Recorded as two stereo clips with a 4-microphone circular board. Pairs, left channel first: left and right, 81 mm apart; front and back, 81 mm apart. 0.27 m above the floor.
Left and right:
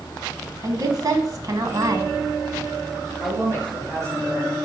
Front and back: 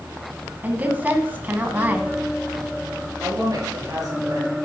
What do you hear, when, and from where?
0.6 s a woman speaking: 115° right, 1.6 m
3.2 s a woman speaking: 140° right, 4 m